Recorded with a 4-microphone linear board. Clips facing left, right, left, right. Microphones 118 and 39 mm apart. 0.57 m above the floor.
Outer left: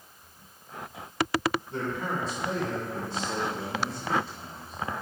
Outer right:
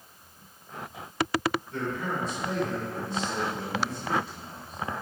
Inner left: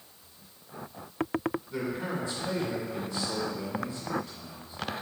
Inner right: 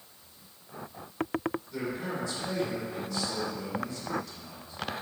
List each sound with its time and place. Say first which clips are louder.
1.7 s a man speaking: even, inner left 1 dB; 30° left (ahead or behind), 1.8 m